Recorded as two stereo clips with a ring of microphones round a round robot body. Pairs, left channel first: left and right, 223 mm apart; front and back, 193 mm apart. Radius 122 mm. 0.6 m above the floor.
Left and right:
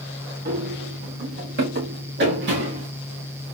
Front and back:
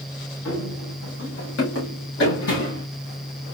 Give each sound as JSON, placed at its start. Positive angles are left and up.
{"t": 0.5, "sound": "running footsteps", "azimuth_deg": -35, "distance_m": 2.5}